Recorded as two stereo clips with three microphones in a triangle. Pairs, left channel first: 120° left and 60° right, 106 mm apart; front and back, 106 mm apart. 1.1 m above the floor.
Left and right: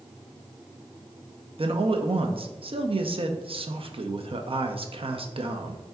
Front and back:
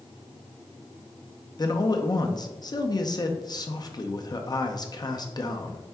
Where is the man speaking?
45° right, 0.5 m.